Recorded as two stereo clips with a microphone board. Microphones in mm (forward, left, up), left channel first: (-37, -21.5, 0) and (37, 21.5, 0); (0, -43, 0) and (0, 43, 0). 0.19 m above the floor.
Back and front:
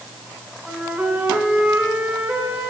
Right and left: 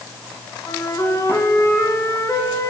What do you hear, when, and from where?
0.7 s a flute: 45° right, 2.5 m